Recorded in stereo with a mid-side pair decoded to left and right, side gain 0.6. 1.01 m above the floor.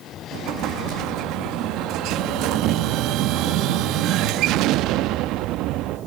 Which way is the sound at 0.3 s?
65° right.